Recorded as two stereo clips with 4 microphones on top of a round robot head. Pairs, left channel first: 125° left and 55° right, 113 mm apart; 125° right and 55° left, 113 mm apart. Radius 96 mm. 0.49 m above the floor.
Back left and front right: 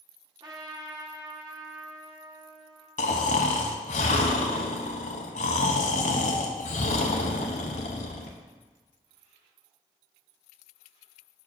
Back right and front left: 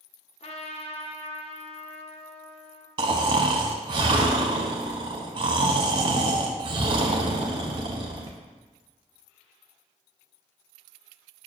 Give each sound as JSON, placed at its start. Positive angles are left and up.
{"t": 0.4, "sound": "a trumpet", "azimuth_deg": -105, "distance_m": 1.1}
{"t": 3.0, "sound": "snoring", "azimuth_deg": 105, "distance_m": 0.5}